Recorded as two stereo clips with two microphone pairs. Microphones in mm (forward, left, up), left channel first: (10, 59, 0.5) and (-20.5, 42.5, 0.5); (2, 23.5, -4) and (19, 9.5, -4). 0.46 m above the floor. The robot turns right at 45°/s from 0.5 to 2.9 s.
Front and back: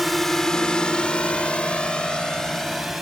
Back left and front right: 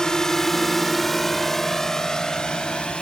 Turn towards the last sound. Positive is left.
turn(degrees=115)